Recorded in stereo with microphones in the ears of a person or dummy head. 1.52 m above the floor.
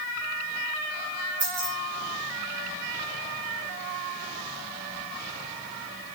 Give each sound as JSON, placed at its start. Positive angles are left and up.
{"t": 1.4, "sound": "keys jangling", "side_deg": -15, "distance_m": 3.0}